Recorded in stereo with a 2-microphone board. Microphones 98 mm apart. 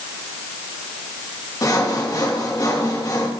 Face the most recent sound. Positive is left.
turn(degrees=35)  # may be behind; listen again after turning